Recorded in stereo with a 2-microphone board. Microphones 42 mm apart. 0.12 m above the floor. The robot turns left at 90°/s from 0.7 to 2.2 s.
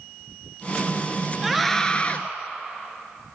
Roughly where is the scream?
Behind.